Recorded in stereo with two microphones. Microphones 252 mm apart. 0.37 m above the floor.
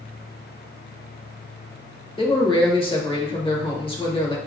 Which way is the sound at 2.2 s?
20° left (ahead or behind).